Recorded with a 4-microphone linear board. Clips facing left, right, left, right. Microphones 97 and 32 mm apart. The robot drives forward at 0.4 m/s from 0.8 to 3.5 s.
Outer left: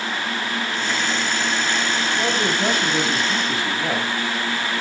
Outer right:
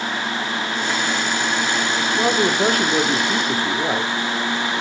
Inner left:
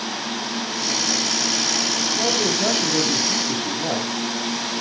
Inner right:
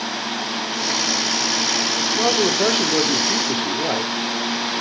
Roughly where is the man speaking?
Right.